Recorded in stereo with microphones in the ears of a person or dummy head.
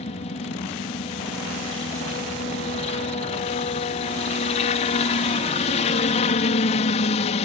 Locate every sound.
0.0 s a helicopter: 35° left (ahead or behind)